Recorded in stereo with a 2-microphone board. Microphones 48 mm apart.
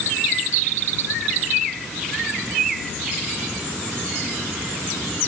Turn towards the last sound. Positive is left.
No sound to turn to.